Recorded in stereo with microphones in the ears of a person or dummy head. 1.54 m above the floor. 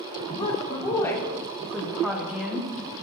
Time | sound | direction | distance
0.4 | a woman speaking | 30° left (ahead or behind) | 1.6 m